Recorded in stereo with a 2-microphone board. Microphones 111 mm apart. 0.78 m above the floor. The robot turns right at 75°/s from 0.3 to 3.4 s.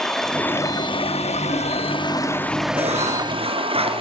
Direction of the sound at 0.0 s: 5° left.